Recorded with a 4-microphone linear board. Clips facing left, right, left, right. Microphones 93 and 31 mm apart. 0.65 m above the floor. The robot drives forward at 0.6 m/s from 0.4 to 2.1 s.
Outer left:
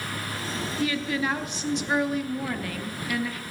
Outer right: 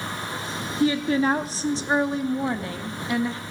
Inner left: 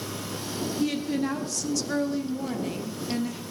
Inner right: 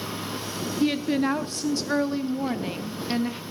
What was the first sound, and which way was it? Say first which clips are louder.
A woman speaking: outer right 7 dB, inner right 5 dB; 30° right (ahead or behind).